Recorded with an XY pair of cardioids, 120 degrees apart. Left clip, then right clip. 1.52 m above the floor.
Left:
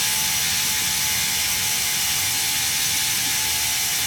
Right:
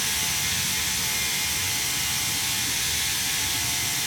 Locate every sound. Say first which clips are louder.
0.0 s a machine running: left 3 dB; 55° left, 5 m